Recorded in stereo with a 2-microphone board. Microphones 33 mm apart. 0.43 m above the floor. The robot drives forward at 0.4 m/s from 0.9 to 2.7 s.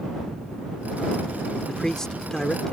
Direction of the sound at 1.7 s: 20° left (ahead or behind).